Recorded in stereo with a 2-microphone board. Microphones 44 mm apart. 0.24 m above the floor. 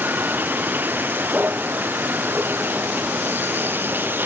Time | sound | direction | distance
0.0 | a vehicle | 45° right (ahead or behind) | ?